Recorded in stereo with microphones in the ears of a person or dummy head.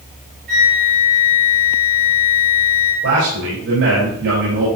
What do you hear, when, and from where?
0.5 s a flute: 65° right (ahead or behind), 5 m
3.0 s a man speaking: 85° right, 4.5 m